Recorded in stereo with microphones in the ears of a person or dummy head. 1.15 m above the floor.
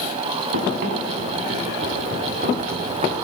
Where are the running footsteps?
65° right (ahead or behind), 7.5 m; by 3.1 s 50° right (ahead or behind), 7.5 m.